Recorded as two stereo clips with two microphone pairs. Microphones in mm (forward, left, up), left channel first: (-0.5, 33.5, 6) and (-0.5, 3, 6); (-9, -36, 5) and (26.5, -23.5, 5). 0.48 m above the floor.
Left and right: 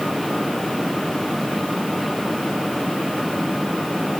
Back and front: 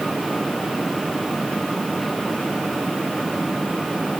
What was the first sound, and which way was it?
Only background noise.